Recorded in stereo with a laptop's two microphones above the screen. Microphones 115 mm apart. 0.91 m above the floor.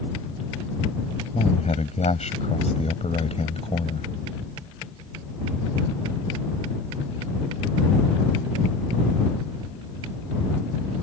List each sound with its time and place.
1.3 s a man speaking: 70° left (ahead or behind); by 4.1 s 55° left (ahead or behind)